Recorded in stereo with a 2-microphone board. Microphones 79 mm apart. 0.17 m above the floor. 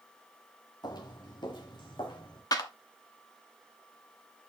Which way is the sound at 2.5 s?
45° left (ahead or behind).